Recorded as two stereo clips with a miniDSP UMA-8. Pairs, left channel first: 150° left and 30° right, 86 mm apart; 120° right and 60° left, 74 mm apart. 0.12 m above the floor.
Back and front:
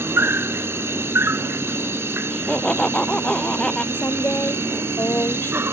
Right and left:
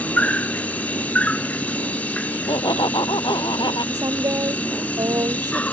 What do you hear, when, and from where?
0.0 s an insect: 65° right
2.3 s laughter: 130° right
3.9 s a woman speaking: 85° left